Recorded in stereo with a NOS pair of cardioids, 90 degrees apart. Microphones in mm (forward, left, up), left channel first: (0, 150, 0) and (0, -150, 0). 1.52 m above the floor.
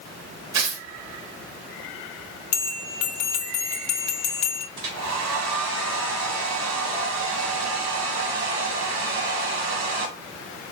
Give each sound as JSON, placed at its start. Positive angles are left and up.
{"t": 0.5, "sound": "tearing paper", "azimuth_deg": -65, "distance_m": 1.1}
{"t": 2.5, "sound": "a bell", "azimuth_deg": 65, "distance_m": 0.7}
{"t": 4.8, "sound": "a hair dryer", "azimuth_deg": -65, "distance_m": 1.3}